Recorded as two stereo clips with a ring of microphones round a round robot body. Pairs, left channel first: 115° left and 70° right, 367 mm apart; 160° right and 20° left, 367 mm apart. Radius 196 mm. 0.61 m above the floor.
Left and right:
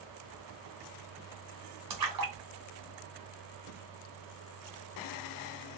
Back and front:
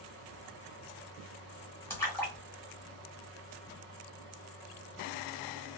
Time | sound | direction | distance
1.9 | a splash | 75° right | 1.2 m